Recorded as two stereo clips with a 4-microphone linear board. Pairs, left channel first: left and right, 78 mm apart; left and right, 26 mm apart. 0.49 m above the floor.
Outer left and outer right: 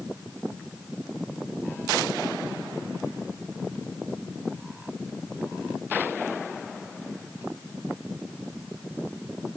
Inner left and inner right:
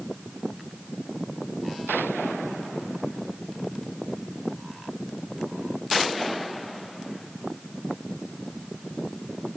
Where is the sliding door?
No sliding door in this recording.